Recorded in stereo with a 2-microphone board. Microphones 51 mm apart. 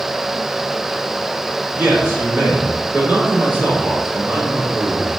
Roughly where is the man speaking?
Right.